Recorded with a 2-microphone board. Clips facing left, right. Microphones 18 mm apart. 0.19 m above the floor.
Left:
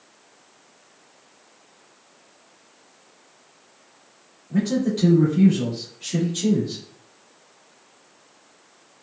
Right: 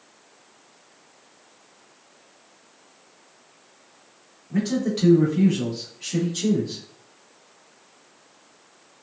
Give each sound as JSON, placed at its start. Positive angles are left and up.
{"t": 4.5, "sound": "a man speaking", "side_deg": -25, "distance_m": 1.1}